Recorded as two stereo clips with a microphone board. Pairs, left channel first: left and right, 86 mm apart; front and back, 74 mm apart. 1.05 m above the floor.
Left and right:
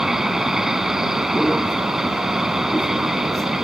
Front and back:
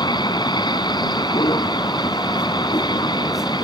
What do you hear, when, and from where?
0.0 s a vehicle: 5° right